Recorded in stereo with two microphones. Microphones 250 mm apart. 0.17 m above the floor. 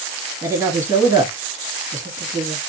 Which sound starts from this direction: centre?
A woman speaking, at 0.4 s.